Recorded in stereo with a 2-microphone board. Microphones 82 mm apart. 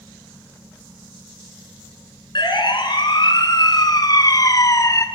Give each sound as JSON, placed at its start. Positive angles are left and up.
{"t": 2.4, "sound": "a siren", "side_deg": 65, "distance_m": 5.0}